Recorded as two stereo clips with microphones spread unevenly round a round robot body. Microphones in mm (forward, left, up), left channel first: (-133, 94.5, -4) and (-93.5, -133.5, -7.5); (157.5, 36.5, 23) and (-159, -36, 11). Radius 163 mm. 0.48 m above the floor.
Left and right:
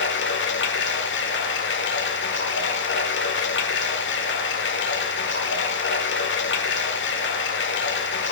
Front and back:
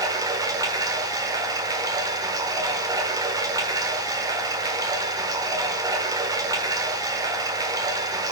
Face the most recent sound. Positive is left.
turn(degrees=120)